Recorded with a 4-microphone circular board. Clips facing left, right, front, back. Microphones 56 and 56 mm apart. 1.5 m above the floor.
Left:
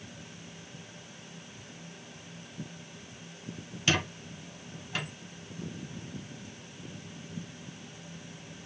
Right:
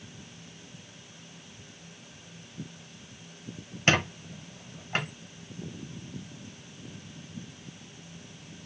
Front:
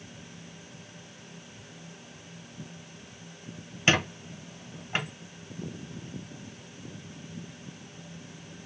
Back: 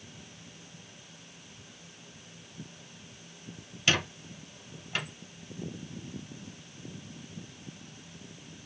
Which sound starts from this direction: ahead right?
A squeak, at 3.9 s.